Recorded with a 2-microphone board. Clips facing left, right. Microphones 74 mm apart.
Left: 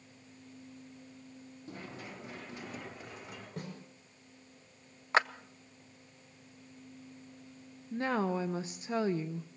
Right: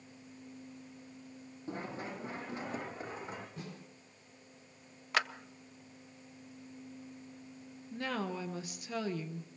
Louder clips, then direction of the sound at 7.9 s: Left 6 dB; 30° left (ahead or behind).